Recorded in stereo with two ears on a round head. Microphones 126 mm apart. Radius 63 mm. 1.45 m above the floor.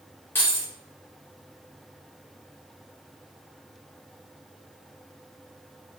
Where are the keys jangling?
15° left (ahead or behind), 3 m.